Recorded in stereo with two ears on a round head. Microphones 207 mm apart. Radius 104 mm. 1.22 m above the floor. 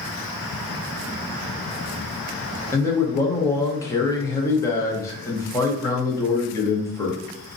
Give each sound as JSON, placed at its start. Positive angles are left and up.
{"t": 2.7, "sound": "a man speaking", "side_deg": 15, "distance_m": 0.6}